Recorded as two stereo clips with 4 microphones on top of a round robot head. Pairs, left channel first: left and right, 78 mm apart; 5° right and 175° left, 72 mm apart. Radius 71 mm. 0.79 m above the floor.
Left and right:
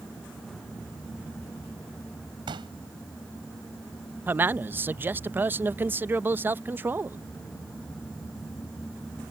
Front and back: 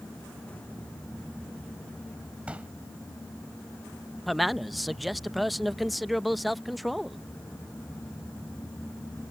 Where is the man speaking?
90° right.